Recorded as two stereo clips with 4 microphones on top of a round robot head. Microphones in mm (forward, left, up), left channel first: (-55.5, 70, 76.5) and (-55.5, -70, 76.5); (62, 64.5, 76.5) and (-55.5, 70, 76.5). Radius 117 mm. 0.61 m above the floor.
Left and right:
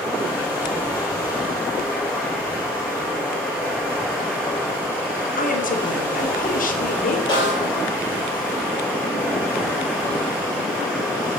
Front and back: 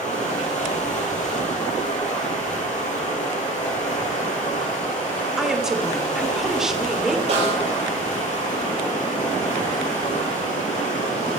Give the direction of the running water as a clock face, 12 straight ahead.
11 o'clock.